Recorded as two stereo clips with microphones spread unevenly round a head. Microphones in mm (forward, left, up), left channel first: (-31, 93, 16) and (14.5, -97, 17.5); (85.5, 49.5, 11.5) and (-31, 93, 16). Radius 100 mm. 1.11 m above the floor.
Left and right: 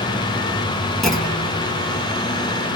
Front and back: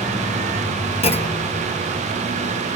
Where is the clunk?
15° left, 3.5 m.